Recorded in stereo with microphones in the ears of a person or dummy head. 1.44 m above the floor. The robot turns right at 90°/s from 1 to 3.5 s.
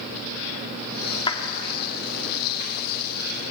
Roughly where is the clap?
Left.